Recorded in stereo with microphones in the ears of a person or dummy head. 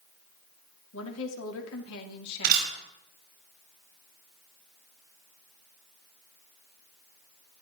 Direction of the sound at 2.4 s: 55° right (ahead or behind).